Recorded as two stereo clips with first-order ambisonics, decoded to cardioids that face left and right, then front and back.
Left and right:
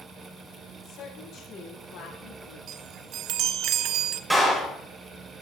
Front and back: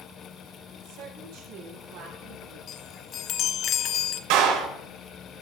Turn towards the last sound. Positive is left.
turn(degrees=-175)